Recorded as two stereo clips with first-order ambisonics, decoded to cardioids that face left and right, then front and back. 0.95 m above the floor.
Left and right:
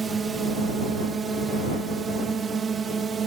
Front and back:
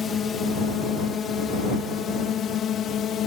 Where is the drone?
35° right; by 3.3 s 30° right.